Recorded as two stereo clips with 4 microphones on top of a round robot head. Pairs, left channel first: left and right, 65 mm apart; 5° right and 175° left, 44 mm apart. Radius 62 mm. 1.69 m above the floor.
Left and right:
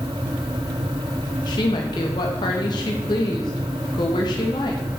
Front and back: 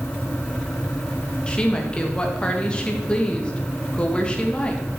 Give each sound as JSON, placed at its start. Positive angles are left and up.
{"t": 1.5, "sound": "a woman speaking", "azimuth_deg": 65, "distance_m": 2.0}